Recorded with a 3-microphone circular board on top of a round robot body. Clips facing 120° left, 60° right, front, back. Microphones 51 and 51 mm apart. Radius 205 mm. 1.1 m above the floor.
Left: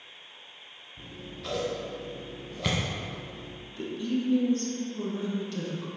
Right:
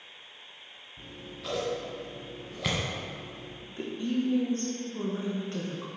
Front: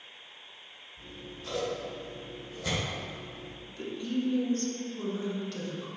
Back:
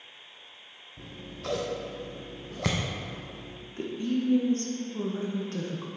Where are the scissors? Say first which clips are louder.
Left 1 dB, back 4 dB; 145° right, 0.6 m.